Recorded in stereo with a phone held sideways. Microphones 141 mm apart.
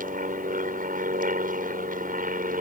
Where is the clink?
I don't hear a clink.